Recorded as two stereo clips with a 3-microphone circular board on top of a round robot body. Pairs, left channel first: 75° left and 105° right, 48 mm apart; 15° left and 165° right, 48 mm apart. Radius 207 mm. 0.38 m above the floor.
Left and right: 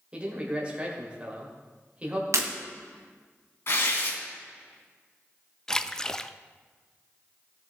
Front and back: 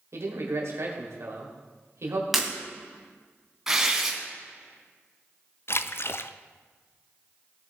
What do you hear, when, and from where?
0.1 s a man speaking: 170° right, 2.5 m
2.3 s breaking glass: 80° right, 1.7 m
3.7 s tearing paper: 115° left, 3 m
5.7 s a splash: straight ahead, 0.6 m